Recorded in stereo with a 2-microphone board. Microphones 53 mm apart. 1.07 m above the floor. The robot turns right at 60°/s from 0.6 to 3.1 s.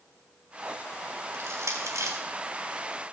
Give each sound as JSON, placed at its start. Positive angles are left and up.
{"t": 1.3, "sound": "crushing", "side_deg": -60, "distance_m": 4.0}